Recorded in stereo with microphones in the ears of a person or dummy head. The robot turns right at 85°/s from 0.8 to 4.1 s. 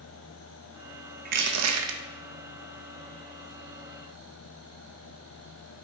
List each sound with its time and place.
1.2 s crushing: 140° right, 1.1 m; by 2.0 s 75° right, 1.1 m